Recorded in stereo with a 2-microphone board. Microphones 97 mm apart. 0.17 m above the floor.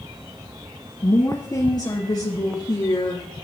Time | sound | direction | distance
1.0 | a woman speaking | 40° left (ahead or behind) | 3 m